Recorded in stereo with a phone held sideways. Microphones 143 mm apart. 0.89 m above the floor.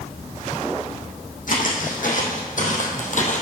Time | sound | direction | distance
1.5 | footsteps | 70° left (ahead or behind) | 3 m